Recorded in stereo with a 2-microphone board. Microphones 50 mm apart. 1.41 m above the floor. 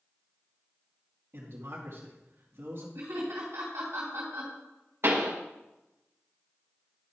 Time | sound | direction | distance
1.3 | a man speaking | 65° right (ahead or behind) | 2 m
3.0 | laughter | 75° right (ahead or behind) | 3 m
5.0 | a pop | 60° right (ahead or behind) | 1.6 m